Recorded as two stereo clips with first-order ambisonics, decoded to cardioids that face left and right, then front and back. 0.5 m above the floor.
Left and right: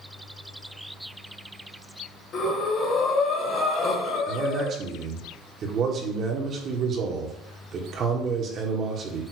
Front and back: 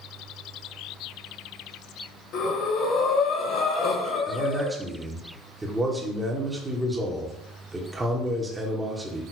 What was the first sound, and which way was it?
Breathing, 40° left.